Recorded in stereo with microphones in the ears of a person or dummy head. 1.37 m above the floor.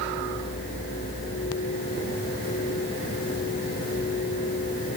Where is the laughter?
I don't hear laughter.